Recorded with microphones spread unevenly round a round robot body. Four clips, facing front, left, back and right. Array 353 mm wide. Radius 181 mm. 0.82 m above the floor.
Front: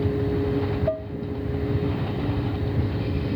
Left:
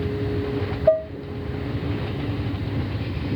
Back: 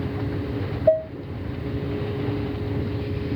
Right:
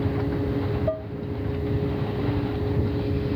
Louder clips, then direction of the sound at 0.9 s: Left 9 dB, back 8 dB; 155° left.